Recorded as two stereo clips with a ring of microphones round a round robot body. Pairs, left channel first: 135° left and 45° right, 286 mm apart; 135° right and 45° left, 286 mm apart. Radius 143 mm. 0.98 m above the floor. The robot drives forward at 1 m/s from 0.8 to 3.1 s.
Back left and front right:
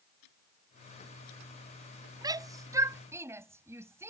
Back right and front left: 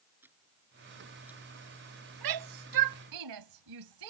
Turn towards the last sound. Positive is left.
turn(degrees=35)